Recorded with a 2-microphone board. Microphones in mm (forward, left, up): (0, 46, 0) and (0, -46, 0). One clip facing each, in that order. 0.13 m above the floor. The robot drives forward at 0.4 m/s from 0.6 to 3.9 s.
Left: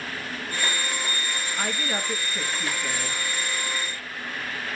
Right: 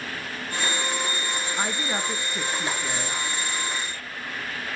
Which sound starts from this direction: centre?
A woman speaking, at 1.6 s.